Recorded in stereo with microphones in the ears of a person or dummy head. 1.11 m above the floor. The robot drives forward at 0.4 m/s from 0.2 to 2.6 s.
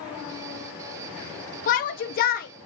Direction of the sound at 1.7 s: 40° left (ahead or behind).